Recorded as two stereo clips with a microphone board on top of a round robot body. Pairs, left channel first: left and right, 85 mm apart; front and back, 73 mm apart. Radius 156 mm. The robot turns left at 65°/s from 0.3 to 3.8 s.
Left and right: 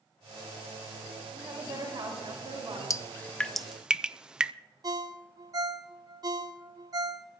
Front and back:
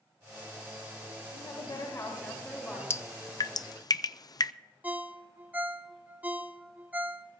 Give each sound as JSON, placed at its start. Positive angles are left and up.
{"t": 1.3, "sound": "a woman speaking", "azimuth_deg": -15, "distance_m": 9.0}
{"t": 2.9, "sound": "dripping", "azimuth_deg": 45, "distance_m": 0.6}
{"t": 4.8, "sound": "a ringtone", "azimuth_deg": -115, "distance_m": 1.2}